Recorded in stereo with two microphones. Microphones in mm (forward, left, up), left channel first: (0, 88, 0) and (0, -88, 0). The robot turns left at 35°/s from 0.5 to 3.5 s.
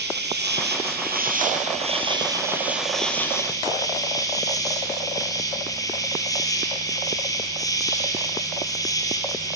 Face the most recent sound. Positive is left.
turn(degrees=160)